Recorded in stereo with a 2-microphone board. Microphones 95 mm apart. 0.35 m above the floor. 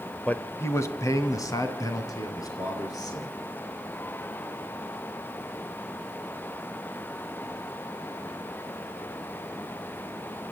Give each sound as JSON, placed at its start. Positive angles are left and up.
{"t": 0.3, "sound": "a man speaking", "side_deg": 15, "distance_m": 0.9}